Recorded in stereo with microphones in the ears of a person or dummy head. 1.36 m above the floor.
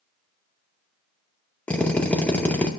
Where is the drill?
15° left (ahead or behind), 0.7 m.